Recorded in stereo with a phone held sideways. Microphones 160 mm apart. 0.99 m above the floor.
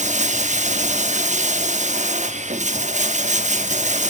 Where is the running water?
50° right (ahead or behind), 1.0 m.